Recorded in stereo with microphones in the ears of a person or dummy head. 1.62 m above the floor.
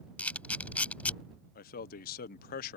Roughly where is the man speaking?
Left.